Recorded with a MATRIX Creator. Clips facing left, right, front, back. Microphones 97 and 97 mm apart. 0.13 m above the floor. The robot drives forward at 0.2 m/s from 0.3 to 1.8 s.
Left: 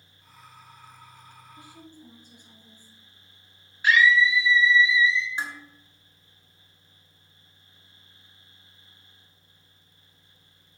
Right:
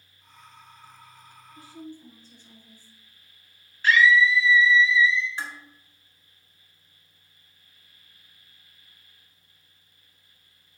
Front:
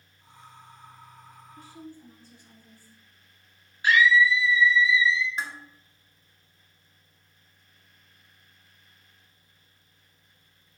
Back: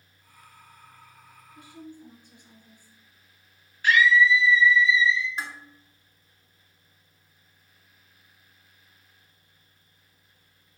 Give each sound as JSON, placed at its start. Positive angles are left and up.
{"t": 1.5, "sound": "a woman speaking", "azimuth_deg": 130, "distance_m": 1.1}
{"t": 3.8, "sound": "a scream", "azimuth_deg": 35, "distance_m": 1.1}
{"t": 5.4, "sound": "dishes clattering", "azimuth_deg": 85, "distance_m": 0.9}